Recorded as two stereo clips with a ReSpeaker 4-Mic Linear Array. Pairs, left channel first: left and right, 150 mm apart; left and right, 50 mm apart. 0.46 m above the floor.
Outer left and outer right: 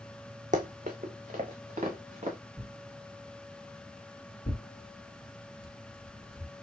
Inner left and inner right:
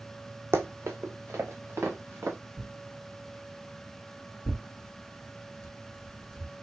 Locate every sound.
0.5 s running footsteps: 55° right (ahead or behind), 1.0 m; by 2.4 s 50° right (ahead or behind), 2.5 m
2.6 s tearing paper: 5° left (ahead or behind), 1.9 m
4.5 s tearing paper: 30° left (ahead or behind), 2 m